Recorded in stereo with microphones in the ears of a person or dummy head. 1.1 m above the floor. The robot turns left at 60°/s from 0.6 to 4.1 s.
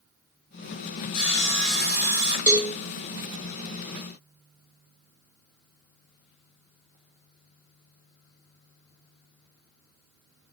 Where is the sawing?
35° left, 1.5 m; by 2.4 s 40° right, 1.5 m.